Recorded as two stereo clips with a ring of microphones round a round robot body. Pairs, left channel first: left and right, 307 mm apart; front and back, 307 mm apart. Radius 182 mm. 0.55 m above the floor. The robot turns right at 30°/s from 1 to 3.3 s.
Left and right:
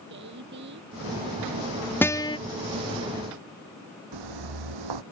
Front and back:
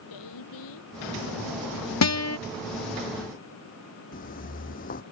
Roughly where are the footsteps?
Ahead right.